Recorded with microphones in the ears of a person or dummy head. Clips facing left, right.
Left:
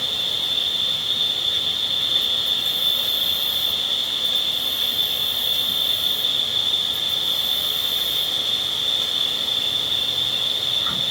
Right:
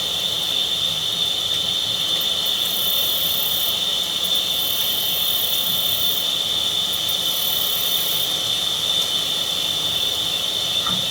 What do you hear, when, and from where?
0.0 s an insect: 55° right (ahead or behind), 3 m